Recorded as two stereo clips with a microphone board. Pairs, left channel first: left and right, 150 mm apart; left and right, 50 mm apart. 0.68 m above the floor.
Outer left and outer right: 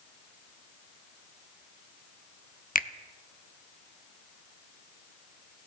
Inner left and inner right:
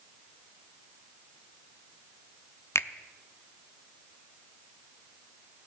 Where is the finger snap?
65° left (ahead or behind), 0.6 m.